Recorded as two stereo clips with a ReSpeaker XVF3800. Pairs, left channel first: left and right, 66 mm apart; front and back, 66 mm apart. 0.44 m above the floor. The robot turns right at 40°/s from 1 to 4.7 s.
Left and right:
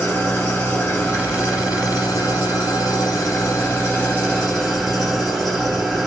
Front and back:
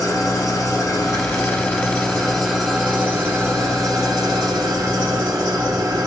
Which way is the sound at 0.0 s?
30° left.